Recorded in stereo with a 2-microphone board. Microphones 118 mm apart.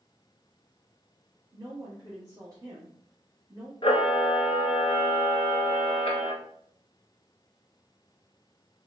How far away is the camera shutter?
About 0.8 m.